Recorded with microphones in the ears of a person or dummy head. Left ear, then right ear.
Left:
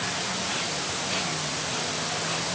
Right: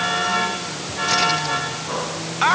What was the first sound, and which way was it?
Only background noise.